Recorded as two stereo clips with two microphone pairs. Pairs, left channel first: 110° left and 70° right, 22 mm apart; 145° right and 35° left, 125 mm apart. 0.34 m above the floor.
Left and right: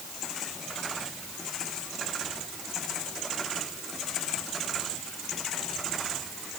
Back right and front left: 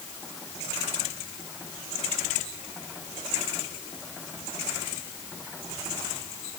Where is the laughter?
No laughter in this recording.